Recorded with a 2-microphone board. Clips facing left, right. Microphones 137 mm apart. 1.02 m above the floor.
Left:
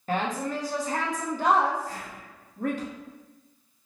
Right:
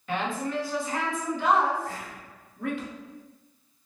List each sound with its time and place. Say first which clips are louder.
0.1 s a woman speaking: left 1 dB; 40° left (ahead or behind), 0.7 m
1.9 s whispering: right 1 dB; 65° right (ahead or behind), 0.5 m